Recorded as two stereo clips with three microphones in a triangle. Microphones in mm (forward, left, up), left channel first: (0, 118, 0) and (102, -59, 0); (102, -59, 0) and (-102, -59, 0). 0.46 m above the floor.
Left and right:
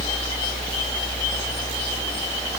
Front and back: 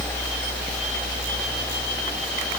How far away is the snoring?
I don't hear snoring.